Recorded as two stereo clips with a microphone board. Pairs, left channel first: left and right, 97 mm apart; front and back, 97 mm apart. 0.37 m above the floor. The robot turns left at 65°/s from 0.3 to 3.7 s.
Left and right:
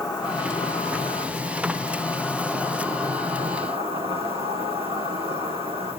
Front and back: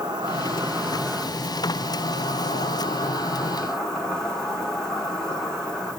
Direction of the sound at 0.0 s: 135° left.